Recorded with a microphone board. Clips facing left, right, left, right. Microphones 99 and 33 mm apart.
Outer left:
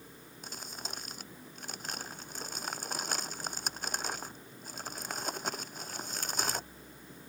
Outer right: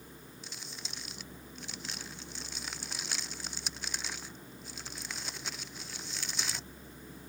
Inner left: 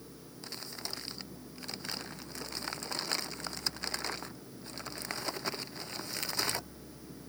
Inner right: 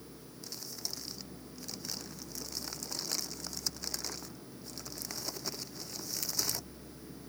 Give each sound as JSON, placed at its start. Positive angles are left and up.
{"t": 0.4, "sound": "crumpling", "side_deg": 45}